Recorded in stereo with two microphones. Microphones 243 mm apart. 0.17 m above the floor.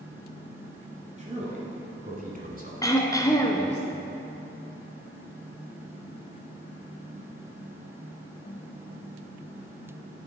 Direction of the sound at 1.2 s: 30° right (ahead or behind).